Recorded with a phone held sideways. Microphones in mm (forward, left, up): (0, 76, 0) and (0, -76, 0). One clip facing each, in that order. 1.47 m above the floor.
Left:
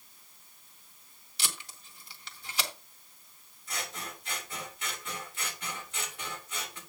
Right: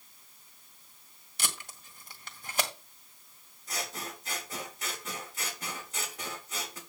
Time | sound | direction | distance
1.4 | tape being pulled | 50° right (ahead or behind) | 1.9 m
3.7 | scissors | 40° right (ahead or behind) | 3.5 m